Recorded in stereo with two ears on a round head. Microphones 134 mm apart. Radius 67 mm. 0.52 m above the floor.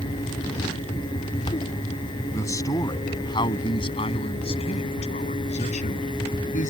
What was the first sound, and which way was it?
A man speaking, 20° left (ahead or behind).